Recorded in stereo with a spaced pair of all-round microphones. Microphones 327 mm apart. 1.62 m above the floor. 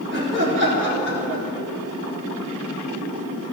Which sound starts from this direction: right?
Laughter, at 0.1 s.